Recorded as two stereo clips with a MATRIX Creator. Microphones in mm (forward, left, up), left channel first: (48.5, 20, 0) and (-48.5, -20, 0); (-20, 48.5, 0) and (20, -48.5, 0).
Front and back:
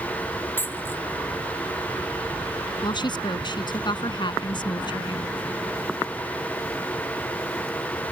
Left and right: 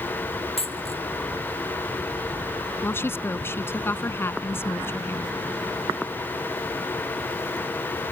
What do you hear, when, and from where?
0.6 s a dropped coin: 90° left
2.8 s a woman speaking: 50° left